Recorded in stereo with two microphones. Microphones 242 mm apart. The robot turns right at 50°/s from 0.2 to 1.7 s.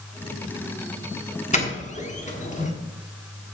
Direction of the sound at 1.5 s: 30° left (ahead or behind).